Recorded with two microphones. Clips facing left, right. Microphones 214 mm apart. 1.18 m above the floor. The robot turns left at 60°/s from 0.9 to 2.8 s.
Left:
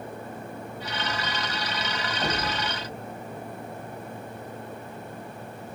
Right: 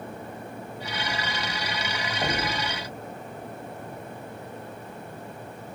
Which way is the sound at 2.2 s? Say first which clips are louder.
Right 1 dB; 25° right (ahead or behind).